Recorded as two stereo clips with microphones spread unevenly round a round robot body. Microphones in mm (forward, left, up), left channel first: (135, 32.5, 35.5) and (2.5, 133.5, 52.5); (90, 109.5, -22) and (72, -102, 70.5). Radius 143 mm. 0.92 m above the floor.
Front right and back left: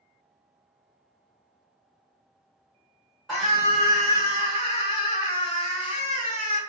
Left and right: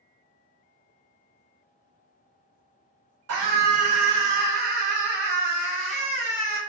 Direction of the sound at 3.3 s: 120° right.